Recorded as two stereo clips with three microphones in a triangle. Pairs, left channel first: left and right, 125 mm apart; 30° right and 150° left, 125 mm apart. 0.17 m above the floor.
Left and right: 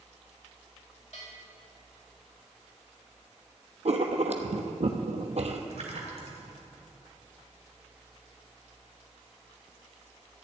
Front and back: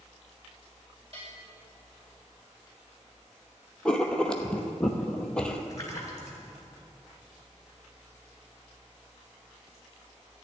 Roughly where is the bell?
Behind left.